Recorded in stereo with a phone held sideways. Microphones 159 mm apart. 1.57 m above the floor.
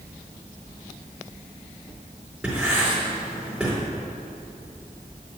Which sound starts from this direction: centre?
Writing, at 2.4 s.